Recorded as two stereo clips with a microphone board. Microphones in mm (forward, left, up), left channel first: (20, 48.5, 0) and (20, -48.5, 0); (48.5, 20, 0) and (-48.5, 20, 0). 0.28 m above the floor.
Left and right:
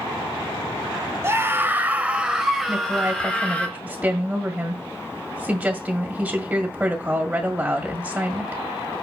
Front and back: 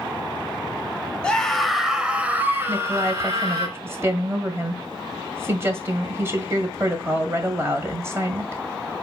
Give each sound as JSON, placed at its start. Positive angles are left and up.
{"t": 1.2, "sound": "a scream", "azimuth_deg": -70, "distance_m": 1.0}
{"t": 2.7, "sound": "a woman speaking", "azimuth_deg": -150, "distance_m": 1.7}